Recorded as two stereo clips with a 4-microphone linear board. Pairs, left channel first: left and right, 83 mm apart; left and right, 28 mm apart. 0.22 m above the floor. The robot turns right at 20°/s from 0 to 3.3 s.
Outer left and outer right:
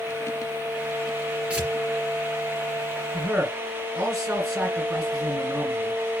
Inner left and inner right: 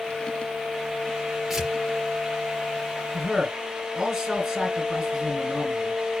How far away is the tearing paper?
About 3.5 m.